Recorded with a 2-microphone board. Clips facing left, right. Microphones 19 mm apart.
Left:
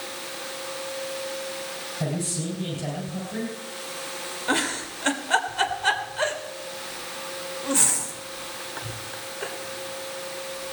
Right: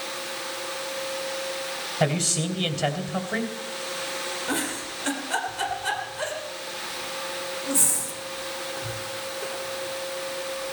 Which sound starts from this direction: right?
A man speaking, at 2.0 s.